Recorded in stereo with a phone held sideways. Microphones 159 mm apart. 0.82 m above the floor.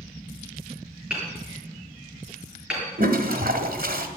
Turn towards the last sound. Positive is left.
turn(degrees=-70)  # may be behind; listen again after turning